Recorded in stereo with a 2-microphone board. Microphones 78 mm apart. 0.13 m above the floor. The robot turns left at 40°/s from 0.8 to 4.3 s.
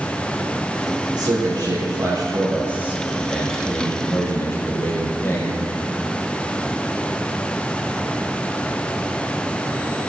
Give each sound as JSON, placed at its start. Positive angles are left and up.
{"t": 1.1, "sound": "a man speaking", "azimuth_deg": -90, "distance_m": 4.0}